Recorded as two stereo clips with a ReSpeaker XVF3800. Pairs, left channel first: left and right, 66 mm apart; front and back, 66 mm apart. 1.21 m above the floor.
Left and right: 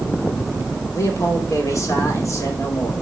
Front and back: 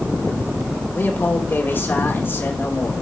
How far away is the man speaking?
About 2.5 m.